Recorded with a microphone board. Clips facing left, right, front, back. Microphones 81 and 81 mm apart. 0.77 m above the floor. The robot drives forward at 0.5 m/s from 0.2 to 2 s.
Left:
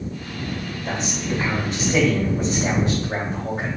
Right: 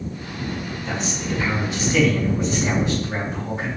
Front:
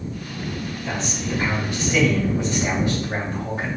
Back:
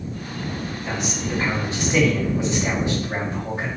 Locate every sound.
0.8 s a man speaking: 100° left, 1.8 m; by 3.7 s 120° left, 1.9 m